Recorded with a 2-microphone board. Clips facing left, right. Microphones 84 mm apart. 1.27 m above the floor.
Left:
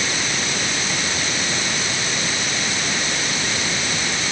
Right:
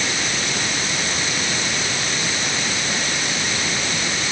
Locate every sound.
Only background noise.